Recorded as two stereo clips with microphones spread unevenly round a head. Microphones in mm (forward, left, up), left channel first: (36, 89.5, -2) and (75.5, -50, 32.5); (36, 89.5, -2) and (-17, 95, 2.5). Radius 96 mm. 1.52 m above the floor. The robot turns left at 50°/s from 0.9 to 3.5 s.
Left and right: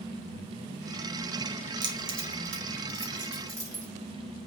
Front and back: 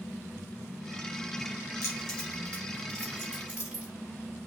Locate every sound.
1.8 s keys jangling: 40° right, 0.7 m; by 3.9 s 125° right, 0.7 m